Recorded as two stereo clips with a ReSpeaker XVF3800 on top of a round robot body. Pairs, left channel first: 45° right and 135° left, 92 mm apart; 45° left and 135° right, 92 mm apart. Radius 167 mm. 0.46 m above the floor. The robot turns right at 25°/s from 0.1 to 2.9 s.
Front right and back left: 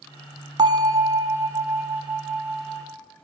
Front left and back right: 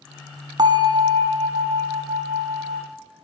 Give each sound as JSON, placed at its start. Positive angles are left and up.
{"t": 0.6, "sound": "a bell", "azimuth_deg": 180, "distance_m": 0.8}